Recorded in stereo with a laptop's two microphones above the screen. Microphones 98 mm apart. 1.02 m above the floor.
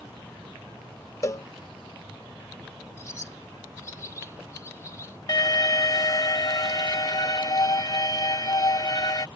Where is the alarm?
45° left (ahead or behind).